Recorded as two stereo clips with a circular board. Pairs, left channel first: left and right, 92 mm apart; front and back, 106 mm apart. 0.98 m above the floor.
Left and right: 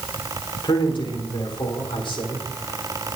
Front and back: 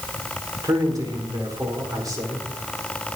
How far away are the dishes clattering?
I don't hear dishes clattering.